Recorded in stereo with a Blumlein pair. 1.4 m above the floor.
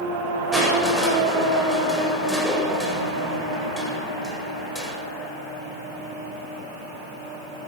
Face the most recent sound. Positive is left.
turn(degrees=5)